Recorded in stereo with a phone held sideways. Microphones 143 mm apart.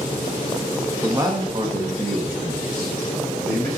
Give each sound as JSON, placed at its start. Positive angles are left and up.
{"t": 1.0, "sound": "a man speaking", "side_deg": -15, "distance_m": 0.8}